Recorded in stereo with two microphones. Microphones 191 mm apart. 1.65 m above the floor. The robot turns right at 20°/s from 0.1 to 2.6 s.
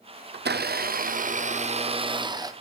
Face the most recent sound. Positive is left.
turn(degrees=-20)